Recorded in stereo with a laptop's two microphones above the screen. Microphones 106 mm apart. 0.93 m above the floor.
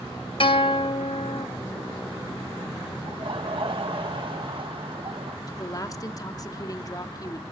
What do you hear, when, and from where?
0.4 s a guitar: 55° left (ahead or behind), 1.2 m
3.1 s laughter: 55° right (ahead or behind), 0.7 m
5.5 s a woman speaking: 35° left (ahead or behind), 2 m